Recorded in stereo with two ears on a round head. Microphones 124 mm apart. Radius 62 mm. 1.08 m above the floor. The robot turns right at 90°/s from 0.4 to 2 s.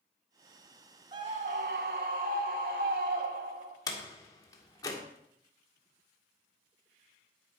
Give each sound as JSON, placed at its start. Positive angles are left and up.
{"t": 1.1, "sound": "a scream", "azimuth_deg": -145, "distance_m": 3.0}
{"t": 3.9, "sound": "a door slam", "side_deg": 25, "distance_m": 2.0}